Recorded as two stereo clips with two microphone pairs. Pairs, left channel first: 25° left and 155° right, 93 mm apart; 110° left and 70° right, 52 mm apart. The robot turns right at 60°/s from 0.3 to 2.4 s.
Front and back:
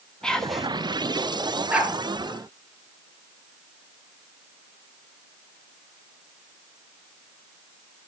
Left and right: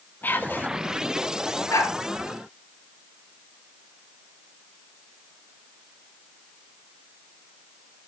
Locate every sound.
0.2 s whispering: 100° left, 1.3 m; by 0.7 s 125° left, 1.3 m
1.7 s a dog barking: 125° left, 3.5 m; by 1.9 s 135° left, 3.5 m